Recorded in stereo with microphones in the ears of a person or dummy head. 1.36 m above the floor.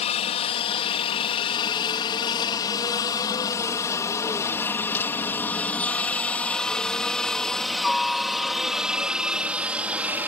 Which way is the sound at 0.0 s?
30° left (ahead or behind).